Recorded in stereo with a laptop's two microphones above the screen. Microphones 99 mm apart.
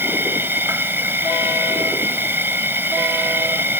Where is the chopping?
No chopping in this recording.